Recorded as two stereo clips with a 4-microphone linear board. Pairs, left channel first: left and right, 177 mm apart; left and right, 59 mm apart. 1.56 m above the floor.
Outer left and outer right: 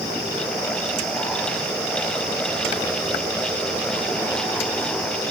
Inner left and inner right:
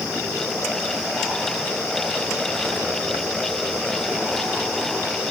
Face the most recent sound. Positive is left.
No sound to turn to.